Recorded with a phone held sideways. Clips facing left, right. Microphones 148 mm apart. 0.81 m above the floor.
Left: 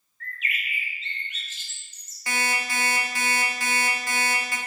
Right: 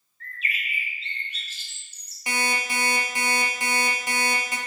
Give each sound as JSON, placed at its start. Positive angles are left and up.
{"t": 0.2, "sound": "a bird", "side_deg": -35, "distance_m": 0.6}
{"t": 2.3, "sound": "an alarm clock", "side_deg": -20, "distance_m": 0.6}